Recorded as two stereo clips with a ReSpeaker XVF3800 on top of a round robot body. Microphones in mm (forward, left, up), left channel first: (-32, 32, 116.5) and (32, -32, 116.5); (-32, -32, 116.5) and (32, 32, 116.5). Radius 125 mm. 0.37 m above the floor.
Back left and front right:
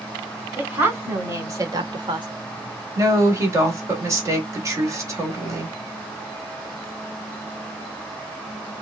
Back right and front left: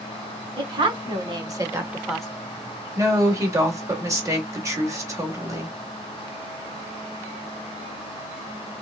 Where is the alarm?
No alarm in this recording.